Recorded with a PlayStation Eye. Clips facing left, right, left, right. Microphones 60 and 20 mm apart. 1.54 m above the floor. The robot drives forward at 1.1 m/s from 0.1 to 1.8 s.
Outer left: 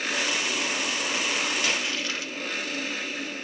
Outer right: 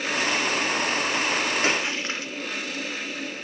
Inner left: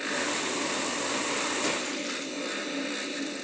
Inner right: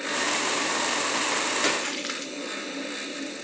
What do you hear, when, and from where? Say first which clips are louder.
1.6 s a splash: outer right 3 dB, inner right 4 dB; 35° right (ahead or behind), 0.6 m; by 2.3 s 30° right (ahead or behind), 0.7 m